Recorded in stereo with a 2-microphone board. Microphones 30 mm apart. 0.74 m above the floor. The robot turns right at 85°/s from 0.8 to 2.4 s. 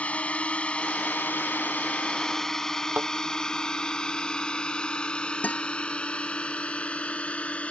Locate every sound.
0.0 s a drone: 50° left (ahead or behind); by 7.7 s 45° left (ahead or behind)
2.9 s a thud: 75° right (ahead or behind)
5.4 s a guitar: 60° left (ahead or behind)